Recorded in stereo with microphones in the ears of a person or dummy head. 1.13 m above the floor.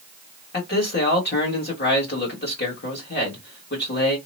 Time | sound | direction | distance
0.5 | a man speaking | 45° left (ahead or behind) | 1.5 m